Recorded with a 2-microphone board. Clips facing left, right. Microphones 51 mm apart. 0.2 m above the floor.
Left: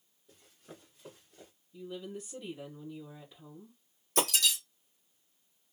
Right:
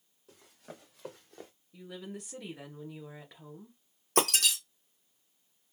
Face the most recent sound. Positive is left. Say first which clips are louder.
# right 2 dB
turn(degrees=-55)  # may be behind; listen again after turning